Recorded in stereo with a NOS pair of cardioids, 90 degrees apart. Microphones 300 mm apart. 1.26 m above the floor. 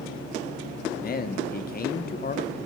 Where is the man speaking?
30° left, 0.7 m.